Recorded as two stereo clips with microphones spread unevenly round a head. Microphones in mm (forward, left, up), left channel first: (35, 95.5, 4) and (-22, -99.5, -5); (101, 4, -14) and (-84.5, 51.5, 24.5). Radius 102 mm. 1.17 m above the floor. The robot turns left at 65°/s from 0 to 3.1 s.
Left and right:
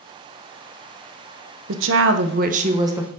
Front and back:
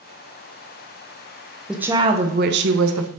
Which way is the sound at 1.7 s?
100° right.